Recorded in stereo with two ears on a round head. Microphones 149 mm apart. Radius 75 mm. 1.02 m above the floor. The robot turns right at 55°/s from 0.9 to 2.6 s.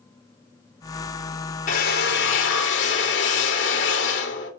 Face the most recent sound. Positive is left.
turn(degrees=100)